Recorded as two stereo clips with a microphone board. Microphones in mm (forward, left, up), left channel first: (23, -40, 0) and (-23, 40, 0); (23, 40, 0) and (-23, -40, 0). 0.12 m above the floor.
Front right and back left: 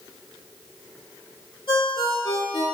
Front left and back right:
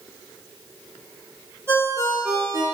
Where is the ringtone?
65° right, 1.4 m.